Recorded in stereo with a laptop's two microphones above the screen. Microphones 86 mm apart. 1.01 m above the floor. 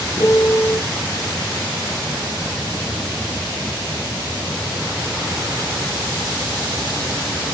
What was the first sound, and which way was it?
A piano, 40° left (ahead or behind).